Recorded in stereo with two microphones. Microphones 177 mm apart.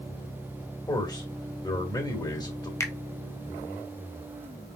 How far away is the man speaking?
About 1.7 m.